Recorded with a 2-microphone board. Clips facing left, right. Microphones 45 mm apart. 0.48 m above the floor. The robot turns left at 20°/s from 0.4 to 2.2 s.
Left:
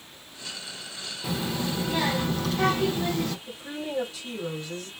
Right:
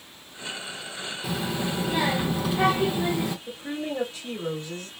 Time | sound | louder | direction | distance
1.2 | a child speaking | even | centre (ahead or behind) | 0.6 m
3.5 | a woman speaking | right 3 dB | 35° right (ahead or behind) | 1.5 m